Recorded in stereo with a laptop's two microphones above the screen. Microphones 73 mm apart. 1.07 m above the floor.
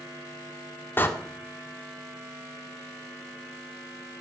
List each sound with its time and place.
1.0 s a door slam: 30° left (ahead or behind), 1.6 m